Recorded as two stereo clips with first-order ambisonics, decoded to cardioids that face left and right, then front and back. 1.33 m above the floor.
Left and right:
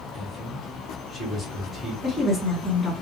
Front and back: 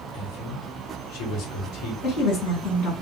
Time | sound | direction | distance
0.1 | a man speaking | 15° left | 1.3 m
2.0 | a woman speaking | 15° left | 1.6 m